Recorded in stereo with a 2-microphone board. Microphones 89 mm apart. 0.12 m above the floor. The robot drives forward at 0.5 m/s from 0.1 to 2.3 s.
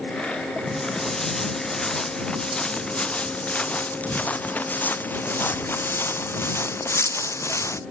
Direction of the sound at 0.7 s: 5° left (ahead or behind).